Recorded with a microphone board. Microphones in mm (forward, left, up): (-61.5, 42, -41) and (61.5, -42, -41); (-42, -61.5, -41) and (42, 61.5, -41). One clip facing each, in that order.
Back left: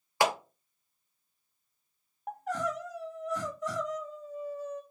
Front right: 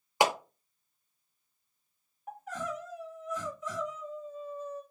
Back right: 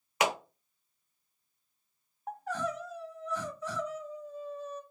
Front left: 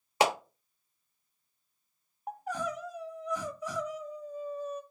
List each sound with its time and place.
0.2 s a clap: 25° left, 0.7 m
2.3 s crying: 130° left, 0.6 m